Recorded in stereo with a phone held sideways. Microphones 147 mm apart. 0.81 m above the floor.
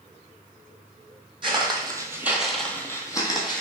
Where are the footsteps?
35° right (ahead or behind), 1.2 m; by 3.6 s 30° left (ahead or behind), 1.4 m.